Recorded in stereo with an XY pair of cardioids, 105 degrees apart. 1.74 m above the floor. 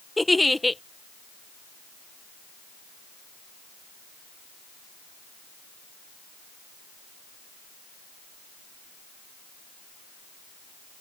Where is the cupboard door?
I don't hear a cupboard door.